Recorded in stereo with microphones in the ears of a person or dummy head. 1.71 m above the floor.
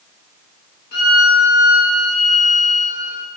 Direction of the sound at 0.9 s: 50° left (ahead or behind).